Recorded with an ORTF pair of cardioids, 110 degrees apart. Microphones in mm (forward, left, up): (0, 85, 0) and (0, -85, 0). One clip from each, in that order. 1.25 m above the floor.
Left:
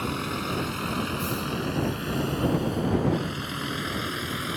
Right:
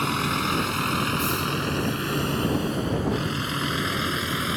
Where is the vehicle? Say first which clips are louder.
Right 5 dB; 45° right; by 4.6 s 30° right.